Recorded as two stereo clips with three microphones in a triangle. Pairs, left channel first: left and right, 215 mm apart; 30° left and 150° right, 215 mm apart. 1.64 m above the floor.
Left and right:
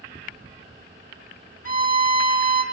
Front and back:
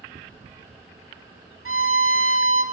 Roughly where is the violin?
Behind right.